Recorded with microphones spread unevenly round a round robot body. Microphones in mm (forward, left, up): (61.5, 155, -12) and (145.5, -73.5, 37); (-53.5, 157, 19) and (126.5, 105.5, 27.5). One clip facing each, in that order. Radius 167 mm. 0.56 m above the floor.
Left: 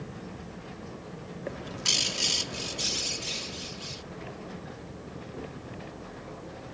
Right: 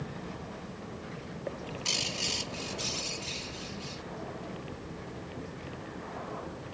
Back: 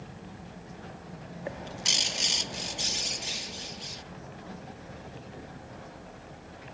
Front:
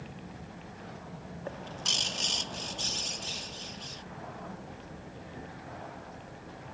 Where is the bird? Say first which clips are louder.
Left 1 dB, back 3 dB; 105° left.